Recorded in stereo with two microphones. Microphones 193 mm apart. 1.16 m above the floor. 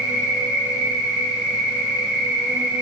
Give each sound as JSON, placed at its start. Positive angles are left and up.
{"t": 0.0, "sound": "an insect", "side_deg": -70, "distance_m": 1.3}